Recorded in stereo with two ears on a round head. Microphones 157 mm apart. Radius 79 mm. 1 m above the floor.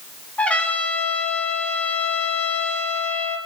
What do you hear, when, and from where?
0.4 s a trumpet: 10° left (ahead or behind), 1.6 m